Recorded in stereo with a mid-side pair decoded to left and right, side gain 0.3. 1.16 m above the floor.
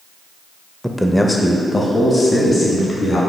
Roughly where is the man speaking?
Ahead.